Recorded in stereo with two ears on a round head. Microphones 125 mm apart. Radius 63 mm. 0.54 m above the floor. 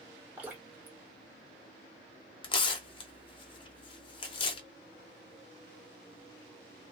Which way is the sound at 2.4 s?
35° left (ahead or behind).